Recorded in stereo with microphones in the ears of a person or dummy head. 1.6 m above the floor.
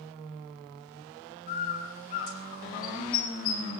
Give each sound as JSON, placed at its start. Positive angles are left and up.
{"t": 1.5, "sound": "a bird", "side_deg": 45, "distance_m": 6.5}